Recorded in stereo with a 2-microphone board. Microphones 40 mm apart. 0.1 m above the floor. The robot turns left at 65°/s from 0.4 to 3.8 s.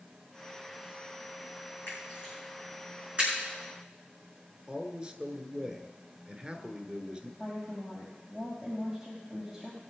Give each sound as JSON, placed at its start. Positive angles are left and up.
{"t": 1.9, "sound": "a camera shutter", "side_deg": 55, "distance_m": 7.0}
{"t": 4.7, "sound": "a man speaking", "side_deg": -25, "distance_m": 1.2}
{"t": 7.4, "sound": "a woman speaking", "side_deg": -15, "distance_m": 5.0}